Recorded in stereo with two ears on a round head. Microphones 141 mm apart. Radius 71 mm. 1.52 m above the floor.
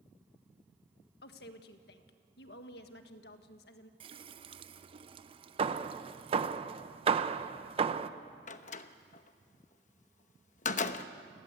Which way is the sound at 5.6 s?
35° right (ahead or behind).